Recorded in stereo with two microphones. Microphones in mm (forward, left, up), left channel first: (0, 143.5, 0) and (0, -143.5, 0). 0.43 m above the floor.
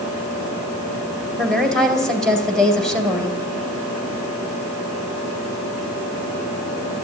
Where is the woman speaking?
Centre (ahead or behind), 2 m.